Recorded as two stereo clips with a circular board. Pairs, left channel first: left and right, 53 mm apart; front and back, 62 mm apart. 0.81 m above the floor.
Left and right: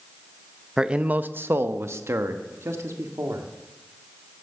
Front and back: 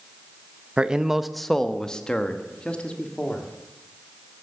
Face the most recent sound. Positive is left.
turn(degrees=-70)